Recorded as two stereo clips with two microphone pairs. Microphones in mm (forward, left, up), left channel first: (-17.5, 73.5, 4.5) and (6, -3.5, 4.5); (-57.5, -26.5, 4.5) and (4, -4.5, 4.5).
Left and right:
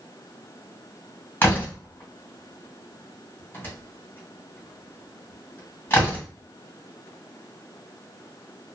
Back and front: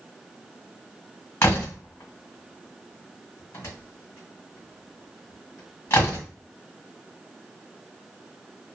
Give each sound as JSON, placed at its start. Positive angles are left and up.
{"t": 1.4, "sound": "a door slam", "azimuth_deg": 165, "distance_m": 1.6}